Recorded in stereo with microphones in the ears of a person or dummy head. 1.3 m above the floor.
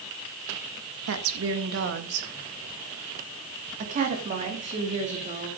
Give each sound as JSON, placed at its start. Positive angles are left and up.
{"t": 1.1, "sound": "a woman speaking", "side_deg": -85, "distance_m": 1.9}